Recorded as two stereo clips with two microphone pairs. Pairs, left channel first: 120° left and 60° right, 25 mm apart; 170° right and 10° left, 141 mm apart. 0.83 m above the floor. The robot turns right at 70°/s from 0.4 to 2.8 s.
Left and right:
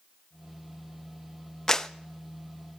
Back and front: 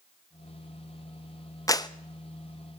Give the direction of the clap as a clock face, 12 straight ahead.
7 o'clock.